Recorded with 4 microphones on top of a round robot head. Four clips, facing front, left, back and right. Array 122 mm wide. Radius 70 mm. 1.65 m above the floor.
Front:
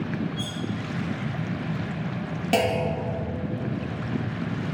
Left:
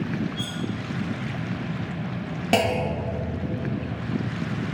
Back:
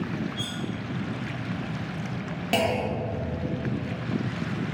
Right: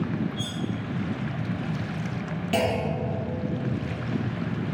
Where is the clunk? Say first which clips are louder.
Left 3 dB, front 2 dB; 85° left, 1.3 m.